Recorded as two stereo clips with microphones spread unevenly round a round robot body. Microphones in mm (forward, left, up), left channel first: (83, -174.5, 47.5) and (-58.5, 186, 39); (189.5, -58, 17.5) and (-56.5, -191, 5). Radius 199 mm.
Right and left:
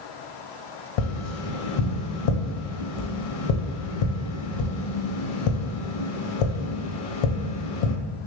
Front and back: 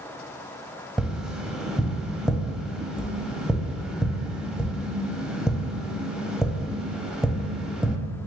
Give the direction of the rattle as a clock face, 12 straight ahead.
I don't hear a rattle.